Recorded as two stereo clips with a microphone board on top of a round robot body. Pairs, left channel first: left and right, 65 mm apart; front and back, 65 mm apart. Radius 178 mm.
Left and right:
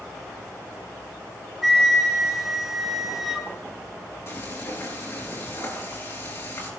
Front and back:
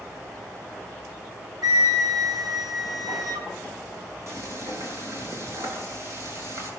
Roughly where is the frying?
Behind left.